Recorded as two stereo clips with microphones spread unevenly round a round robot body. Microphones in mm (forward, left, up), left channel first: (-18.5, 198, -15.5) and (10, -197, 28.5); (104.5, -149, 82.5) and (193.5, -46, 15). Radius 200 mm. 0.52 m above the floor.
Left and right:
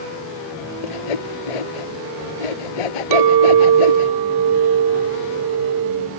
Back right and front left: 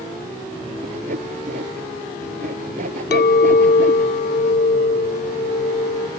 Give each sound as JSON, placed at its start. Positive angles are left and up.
{"t": 0.8, "sound": "sawing", "azimuth_deg": 105}
{"t": 3.1, "sound": "a clink", "azimuth_deg": -125}